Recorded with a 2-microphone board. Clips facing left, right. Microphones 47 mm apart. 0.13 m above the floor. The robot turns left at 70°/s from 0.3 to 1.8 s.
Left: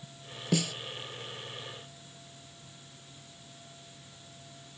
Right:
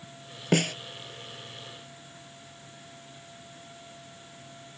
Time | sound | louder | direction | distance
0.5 | a snare drum | right 5 dB | 55° right (ahead or behind) | ?